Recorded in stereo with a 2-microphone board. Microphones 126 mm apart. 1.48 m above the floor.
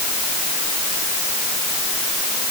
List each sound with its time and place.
Only background noise.